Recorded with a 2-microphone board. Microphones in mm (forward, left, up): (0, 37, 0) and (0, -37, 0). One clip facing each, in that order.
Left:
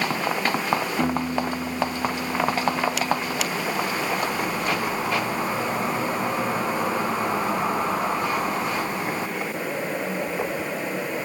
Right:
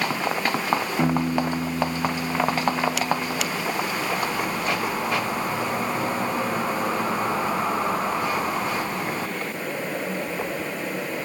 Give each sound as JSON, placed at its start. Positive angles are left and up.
{"t": 1.0, "sound": "a piano", "side_deg": -15, "distance_m": 0.7}